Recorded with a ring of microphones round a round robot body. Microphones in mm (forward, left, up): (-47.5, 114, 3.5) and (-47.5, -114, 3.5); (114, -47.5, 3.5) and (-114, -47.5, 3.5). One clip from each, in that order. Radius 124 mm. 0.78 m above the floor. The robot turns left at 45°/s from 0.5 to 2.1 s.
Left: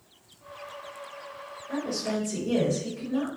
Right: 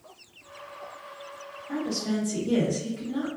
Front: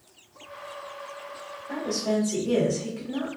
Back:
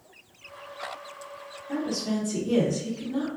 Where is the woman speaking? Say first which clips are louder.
Even, front 3 dB; 5° right, 1.5 m; by 3.3 s 25° right, 1.5 m.